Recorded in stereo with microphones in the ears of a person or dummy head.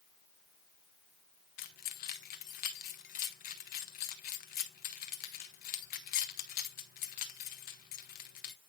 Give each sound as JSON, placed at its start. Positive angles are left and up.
{"t": 1.6, "sound": "keys jangling", "side_deg": 50, "distance_m": 1.4}